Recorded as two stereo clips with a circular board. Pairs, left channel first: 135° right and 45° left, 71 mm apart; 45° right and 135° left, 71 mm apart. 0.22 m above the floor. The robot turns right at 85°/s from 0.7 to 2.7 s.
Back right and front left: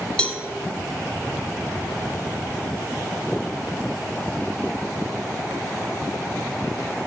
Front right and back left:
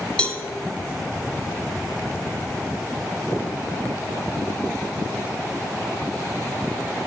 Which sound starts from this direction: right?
A cowbell, at 0.2 s.